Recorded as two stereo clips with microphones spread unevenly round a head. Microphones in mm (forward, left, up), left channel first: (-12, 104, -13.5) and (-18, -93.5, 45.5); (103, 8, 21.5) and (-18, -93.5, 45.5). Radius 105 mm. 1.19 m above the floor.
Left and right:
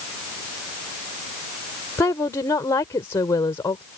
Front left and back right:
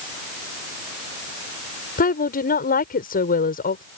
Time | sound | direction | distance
2.0 | a woman speaking | 10° left | ?